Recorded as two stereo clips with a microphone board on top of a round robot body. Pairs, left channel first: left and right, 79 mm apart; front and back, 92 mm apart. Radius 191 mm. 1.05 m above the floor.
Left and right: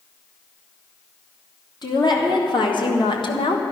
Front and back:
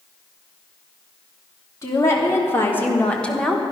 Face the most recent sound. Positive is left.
turn(degrees=90)